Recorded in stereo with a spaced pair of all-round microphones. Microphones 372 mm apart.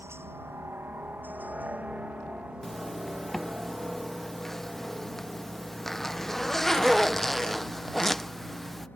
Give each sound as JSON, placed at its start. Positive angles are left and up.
{"t": 0.0, "sound": "a helicopter", "side_deg": -5}
{"t": 2.6, "sound": "a zipper", "side_deg": 0}